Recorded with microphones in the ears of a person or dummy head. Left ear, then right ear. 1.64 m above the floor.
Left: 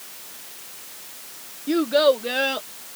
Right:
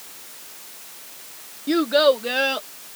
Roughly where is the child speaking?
Right.